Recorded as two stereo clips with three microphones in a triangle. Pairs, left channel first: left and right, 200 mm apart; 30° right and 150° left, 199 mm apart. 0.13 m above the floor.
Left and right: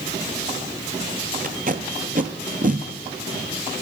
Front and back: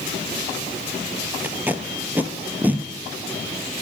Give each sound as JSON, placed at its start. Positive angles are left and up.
{"t": 1.4, "sound": "tape being pulled", "azimuth_deg": -130, "distance_m": 0.5}